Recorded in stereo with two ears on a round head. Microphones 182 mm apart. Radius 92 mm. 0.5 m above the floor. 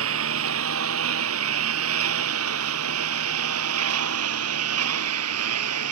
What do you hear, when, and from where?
0.0 s a lawn mower: 70° right (ahead or behind); by 5.9 s 80° right